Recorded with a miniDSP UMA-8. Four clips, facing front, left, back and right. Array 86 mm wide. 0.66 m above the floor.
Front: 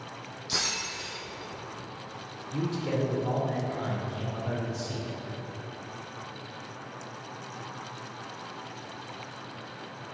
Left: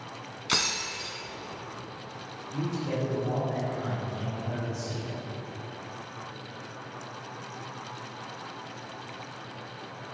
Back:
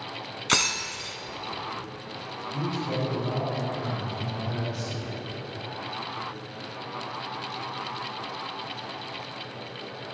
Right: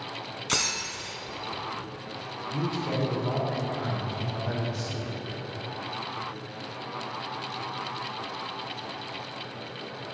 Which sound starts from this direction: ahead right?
A man speaking, at 2.5 s.